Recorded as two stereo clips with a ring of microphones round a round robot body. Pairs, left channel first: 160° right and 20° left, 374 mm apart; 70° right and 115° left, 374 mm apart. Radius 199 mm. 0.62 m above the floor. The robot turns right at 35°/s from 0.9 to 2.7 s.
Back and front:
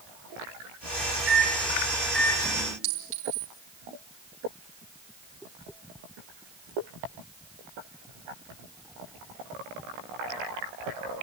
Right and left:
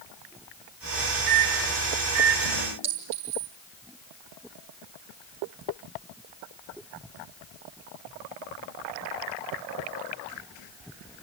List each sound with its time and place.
1.3 s a microwave: 80° left, 2.0 m; by 2.7 s 130° left, 2.0 m
2.8 s a clink: 55° left, 6 m